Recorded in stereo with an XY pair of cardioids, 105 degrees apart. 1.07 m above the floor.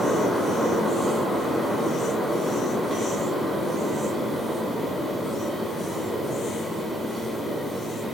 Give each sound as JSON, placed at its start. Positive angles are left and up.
{"t": 0.0, "sound": "a fan", "azimuth_deg": -10, "distance_m": 2.5}